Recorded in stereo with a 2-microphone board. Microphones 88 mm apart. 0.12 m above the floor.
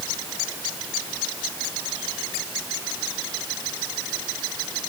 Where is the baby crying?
No baby crying in this recording.